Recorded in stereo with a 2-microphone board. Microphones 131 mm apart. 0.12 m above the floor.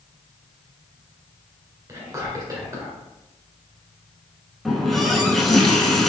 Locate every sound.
1.9 s whispering: 25° right (ahead or behind), 1.8 m
4.7 s a running tap: centre (ahead or behind), 0.7 m